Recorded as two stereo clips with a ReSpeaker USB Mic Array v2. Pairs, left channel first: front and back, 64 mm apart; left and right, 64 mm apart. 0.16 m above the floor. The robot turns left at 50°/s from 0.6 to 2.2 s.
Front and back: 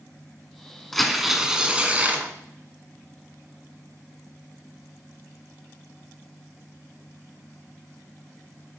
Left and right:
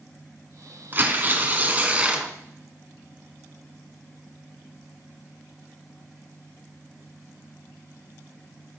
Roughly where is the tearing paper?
Right.